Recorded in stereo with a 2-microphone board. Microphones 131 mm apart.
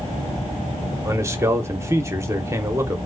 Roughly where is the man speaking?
Right.